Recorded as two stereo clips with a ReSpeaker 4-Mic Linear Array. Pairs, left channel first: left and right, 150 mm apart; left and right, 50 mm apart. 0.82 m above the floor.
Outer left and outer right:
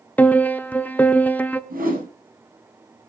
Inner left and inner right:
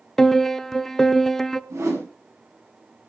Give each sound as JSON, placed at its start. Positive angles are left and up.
{"t": 0.2, "sound": "a piano", "side_deg": 10, "distance_m": 0.9}
{"t": 1.7, "sound": "a whoosh", "side_deg": -70, "distance_m": 7.0}